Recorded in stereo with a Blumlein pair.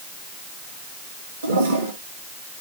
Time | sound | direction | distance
1.4 | a toilet flushing | 65° right | 2 m